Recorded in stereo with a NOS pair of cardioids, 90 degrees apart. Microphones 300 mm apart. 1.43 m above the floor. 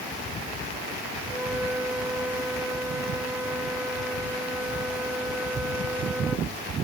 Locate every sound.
1.3 s a flute: 5° right